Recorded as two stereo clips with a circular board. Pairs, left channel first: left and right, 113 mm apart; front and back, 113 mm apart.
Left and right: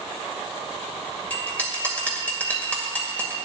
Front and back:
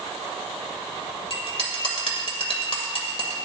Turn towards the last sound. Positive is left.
turn(degrees=15)